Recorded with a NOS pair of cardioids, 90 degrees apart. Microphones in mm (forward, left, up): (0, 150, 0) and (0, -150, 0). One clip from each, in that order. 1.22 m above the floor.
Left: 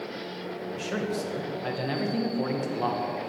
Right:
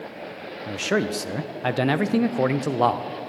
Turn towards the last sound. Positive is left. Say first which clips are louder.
# right 8 dB
turn(degrees=-50)